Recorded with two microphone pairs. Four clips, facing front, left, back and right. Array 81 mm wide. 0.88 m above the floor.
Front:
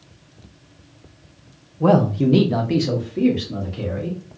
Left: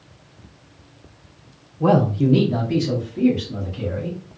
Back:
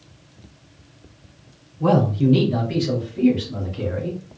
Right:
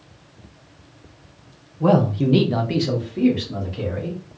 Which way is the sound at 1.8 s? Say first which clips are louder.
Even, front 2 dB; 30° left.